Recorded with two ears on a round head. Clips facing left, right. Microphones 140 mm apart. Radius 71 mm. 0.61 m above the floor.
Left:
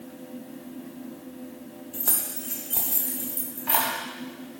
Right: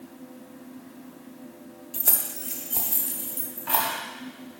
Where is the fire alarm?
No fire alarm in this recording.